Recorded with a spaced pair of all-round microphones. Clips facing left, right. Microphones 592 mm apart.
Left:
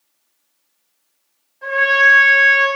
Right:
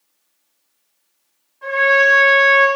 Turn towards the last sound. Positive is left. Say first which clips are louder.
# right 5 dB
turn(degrees=10)  # may be behind; listen again after turning